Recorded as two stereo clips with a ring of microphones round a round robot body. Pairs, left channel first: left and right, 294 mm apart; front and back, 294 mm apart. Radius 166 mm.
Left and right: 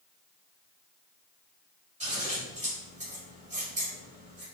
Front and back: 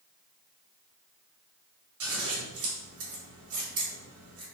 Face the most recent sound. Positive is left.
turn(degrees=-160)